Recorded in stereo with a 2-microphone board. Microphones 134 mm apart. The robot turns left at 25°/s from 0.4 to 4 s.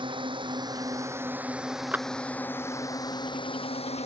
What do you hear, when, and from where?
0.0 s a drone: 140° right; by 4.1 s 130° left
1.9 s a clap: 10° right (ahead or behind)